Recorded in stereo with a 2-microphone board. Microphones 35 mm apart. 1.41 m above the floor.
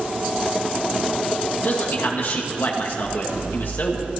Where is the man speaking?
65° left (ahead or behind), 2 m.